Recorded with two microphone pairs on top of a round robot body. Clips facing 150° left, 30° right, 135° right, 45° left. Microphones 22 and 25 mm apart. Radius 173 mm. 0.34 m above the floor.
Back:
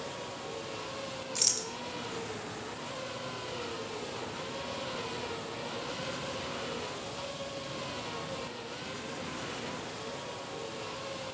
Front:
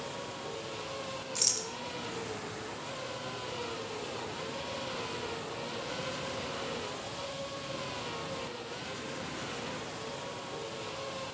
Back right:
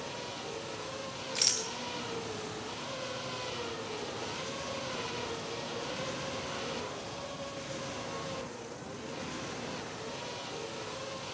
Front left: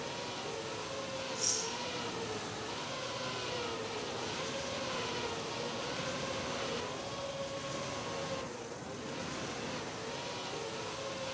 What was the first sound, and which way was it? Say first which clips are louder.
A rattle: back 1 dB, back right 7 dB; 130° right.